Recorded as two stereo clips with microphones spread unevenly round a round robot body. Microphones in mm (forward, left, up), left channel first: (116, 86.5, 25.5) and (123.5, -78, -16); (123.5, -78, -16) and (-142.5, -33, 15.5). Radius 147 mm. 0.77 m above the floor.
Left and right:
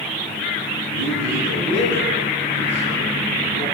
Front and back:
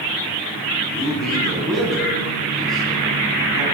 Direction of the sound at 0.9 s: 100° right.